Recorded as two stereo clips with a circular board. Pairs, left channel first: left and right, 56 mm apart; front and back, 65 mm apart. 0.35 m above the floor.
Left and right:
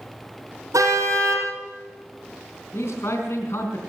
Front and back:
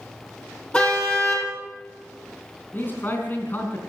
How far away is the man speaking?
About 3.5 m.